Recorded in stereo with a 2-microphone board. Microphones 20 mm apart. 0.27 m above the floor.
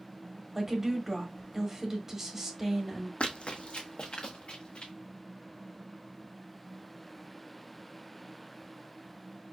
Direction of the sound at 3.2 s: 70° left (ahead or behind).